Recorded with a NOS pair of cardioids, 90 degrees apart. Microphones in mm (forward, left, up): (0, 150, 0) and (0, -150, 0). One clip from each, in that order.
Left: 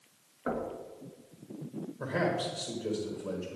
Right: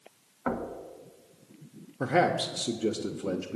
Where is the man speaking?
55° right, 1.0 m.